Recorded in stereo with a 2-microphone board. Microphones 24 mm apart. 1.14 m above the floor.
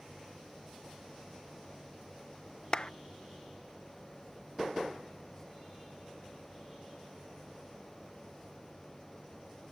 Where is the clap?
35° left (ahead or behind).